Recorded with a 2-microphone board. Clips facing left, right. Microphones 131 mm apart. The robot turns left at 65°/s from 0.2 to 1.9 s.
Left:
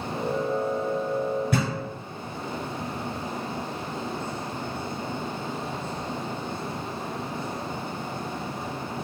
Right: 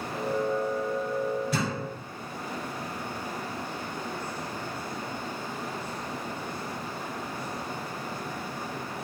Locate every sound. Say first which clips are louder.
1.5 s a thud: left 3 dB; 55° left (ahead or behind), 1.2 m; by 1.7 s 65° left (ahead or behind), 1.2 m